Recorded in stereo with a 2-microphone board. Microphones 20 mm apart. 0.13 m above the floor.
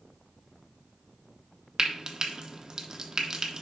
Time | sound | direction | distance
1.8 | frying | 30° right (ahead or behind) | 0.8 m